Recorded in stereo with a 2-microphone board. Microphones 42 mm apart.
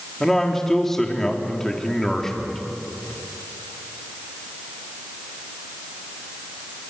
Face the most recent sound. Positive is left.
turn(degrees=10)  # may be behind; listen again after turning